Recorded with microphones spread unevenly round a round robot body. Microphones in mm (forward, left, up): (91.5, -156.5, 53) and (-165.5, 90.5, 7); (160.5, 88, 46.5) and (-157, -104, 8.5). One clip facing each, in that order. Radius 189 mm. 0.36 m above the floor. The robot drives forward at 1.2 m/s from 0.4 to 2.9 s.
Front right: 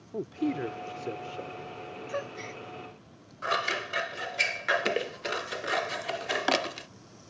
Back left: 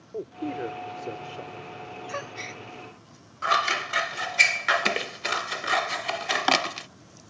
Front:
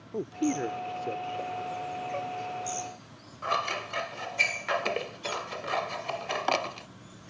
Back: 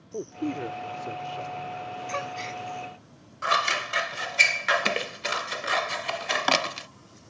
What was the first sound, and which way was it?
A man speaking, 40° right.